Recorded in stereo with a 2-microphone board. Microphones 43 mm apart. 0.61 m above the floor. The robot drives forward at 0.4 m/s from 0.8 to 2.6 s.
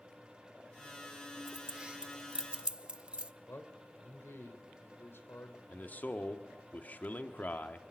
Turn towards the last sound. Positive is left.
turn(degrees=40)  # may be behind; listen again after turning